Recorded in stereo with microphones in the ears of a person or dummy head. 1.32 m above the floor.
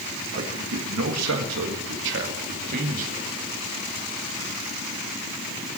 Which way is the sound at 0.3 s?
60° right (ahead or behind).